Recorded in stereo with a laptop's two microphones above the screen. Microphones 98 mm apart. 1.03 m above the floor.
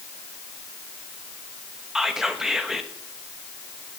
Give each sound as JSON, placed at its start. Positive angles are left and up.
{"t": 1.9, "sound": "whispering", "side_deg": -5, "distance_m": 0.9}